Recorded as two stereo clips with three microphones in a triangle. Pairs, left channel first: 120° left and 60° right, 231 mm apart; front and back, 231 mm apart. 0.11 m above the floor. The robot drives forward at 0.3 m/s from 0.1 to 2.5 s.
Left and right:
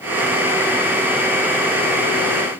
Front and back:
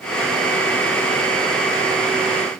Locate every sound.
Only background noise.